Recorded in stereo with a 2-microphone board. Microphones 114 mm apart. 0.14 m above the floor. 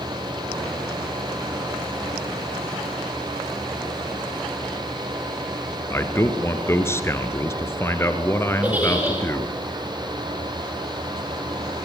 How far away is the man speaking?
About 1.9 m.